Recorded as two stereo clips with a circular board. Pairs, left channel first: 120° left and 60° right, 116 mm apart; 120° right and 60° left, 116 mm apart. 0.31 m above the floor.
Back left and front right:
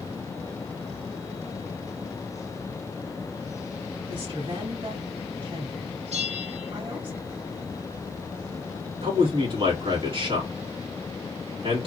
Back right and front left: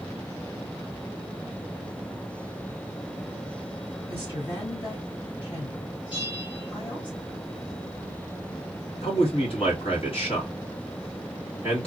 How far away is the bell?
About 2 m.